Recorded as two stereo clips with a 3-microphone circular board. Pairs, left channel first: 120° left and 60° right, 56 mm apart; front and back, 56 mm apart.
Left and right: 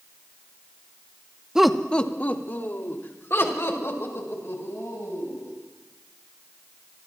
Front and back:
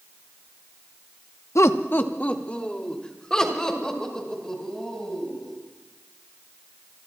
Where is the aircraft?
I don't hear an aircraft.